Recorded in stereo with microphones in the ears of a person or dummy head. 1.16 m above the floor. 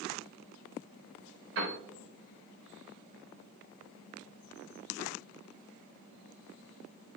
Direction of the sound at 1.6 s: 75° right (ahead or behind).